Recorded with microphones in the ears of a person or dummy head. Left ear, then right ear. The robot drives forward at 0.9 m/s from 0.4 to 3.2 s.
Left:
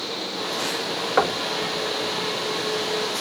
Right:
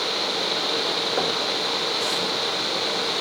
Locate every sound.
1.2 s knocking: 45° left (ahead or behind), 2 m; by 1.4 s 40° left (ahead or behind), 2.5 m